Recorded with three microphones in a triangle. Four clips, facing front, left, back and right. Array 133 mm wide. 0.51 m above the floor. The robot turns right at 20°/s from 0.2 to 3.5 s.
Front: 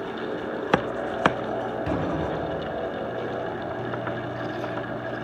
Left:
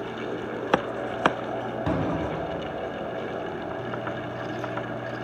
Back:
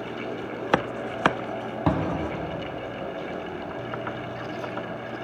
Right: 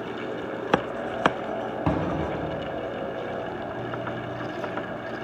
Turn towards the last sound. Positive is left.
turn(degrees=-130)